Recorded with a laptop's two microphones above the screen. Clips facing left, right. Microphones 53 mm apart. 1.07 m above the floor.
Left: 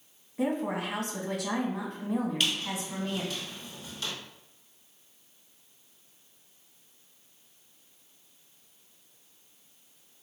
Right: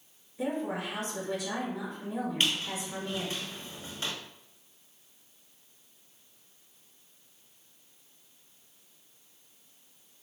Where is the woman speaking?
65° left (ahead or behind), 1.3 m.